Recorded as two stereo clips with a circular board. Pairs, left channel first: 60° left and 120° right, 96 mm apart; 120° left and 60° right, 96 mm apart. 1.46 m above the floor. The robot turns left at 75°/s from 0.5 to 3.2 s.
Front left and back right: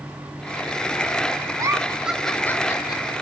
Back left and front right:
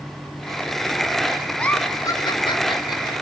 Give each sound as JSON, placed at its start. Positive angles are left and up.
{"t": 1.6, "sound": "a giggle", "azimuth_deg": -160, "distance_m": 1.0}